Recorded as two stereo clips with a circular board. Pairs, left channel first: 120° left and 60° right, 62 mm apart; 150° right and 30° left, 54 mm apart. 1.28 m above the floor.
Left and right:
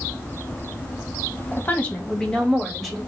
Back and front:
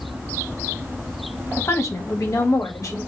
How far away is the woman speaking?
About 1.1 m.